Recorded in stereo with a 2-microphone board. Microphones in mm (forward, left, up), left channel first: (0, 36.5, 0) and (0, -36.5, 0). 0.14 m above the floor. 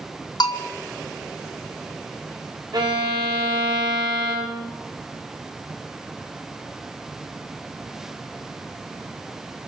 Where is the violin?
70° right (ahead or behind), 6.5 m.